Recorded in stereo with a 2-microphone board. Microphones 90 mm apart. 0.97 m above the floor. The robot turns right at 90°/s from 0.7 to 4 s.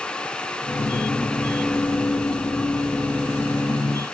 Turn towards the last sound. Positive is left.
No sound to turn to.